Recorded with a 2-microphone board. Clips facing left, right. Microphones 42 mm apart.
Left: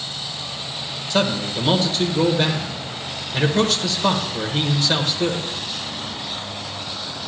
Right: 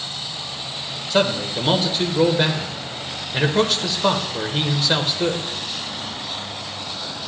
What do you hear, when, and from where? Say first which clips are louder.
1.1 s a man speaking: right 1 dB; 10° right (ahead or behind), 0.9 m